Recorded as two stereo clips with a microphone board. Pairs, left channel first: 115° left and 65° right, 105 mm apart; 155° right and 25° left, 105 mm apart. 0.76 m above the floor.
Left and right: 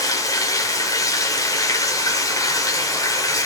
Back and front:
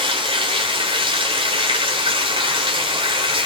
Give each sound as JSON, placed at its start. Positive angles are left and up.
{"t": 0.0, "sound": "running water", "azimuth_deg": 60, "distance_m": 2.0}